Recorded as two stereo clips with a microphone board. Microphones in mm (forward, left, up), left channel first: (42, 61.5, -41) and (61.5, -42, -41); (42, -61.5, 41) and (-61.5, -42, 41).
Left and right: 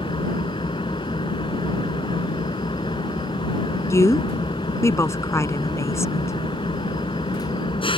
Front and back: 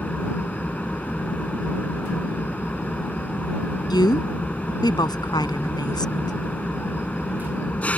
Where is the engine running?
65° left.